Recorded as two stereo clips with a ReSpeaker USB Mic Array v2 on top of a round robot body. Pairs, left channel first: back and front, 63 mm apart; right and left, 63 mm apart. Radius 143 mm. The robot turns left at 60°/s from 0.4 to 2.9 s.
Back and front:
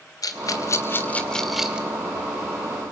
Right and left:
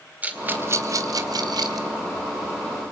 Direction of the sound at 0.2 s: 155° left.